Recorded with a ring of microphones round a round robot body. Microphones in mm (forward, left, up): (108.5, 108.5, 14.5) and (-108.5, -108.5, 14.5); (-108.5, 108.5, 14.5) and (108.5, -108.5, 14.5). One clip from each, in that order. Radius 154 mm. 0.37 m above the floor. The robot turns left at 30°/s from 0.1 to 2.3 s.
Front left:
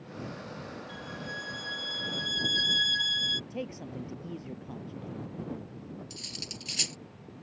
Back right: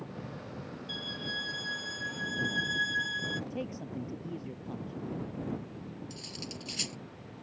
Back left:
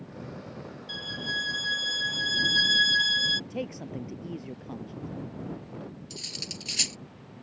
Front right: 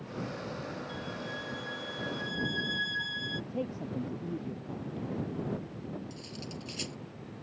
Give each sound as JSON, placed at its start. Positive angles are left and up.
{"t": 0.9, "sound": "a violin", "azimuth_deg": 155}
{"t": 3.5, "sound": "a man speaking", "azimuth_deg": 115}
{"t": 6.1, "sound": "cutlery clinking", "azimuth_deg": 110}